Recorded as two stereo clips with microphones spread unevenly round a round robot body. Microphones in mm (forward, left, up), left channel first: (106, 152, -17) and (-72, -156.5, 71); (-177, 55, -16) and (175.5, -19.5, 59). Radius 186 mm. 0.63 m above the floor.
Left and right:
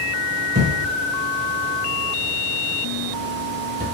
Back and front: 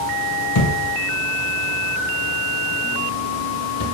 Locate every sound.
0.6 s a thud: 155° right, 0.8 m